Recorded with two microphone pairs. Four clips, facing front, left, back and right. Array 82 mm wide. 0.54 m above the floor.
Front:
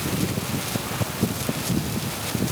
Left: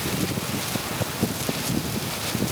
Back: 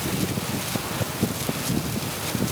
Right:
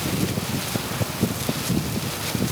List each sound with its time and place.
Only background noise.